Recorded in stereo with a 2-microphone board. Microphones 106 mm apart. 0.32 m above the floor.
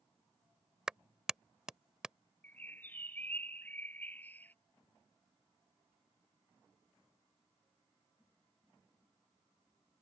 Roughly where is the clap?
Centre.